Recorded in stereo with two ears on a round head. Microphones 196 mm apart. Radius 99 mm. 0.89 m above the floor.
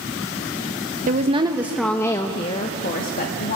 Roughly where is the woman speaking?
Right.